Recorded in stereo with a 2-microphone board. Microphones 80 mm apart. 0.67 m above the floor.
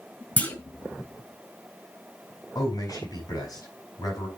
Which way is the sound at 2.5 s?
55° left (ahead or behind).